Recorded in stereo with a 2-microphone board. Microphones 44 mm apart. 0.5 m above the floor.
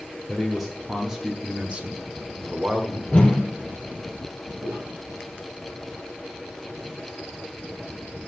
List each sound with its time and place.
0.3 s a man speaking: centre (ahead or behind), 1.4 m; by 3.0 s 30° right (ahead or behind), 1.5 m
3.1 s a whoosh: 20° left (ahead or behind), 2 m
4.6 s footsteps: 50° right (ahead or behind), 6 m